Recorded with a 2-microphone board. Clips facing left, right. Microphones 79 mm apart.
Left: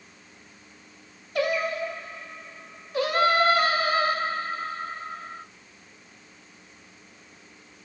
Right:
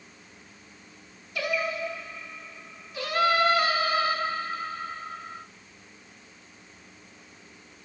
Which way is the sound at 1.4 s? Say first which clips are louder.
Left 4 dB; 50° left (ahead or behind).